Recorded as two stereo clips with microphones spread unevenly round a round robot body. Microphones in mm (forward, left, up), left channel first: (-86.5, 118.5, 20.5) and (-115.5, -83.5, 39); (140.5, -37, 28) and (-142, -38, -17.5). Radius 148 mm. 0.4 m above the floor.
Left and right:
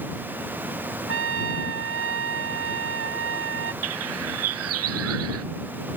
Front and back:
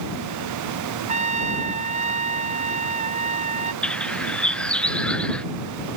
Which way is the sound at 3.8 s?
85° right.